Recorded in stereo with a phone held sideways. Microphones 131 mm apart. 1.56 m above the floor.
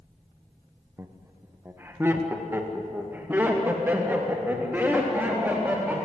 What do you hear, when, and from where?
1.0 s laughter: 20° right (ahead or behind), 1.1 m; by 6.0 s 15° right (ahead or behind), 4 m